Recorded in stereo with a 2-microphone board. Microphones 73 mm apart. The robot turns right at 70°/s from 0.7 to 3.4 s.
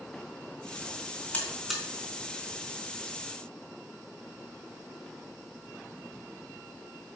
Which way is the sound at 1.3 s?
20° left (ahead or behind).